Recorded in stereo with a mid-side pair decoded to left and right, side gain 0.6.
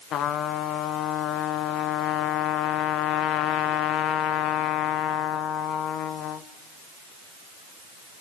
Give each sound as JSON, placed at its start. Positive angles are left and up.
{"t": 0.1, "sound": "a trumpet", "azimuth_deg": 55, "distance_m": 1.2}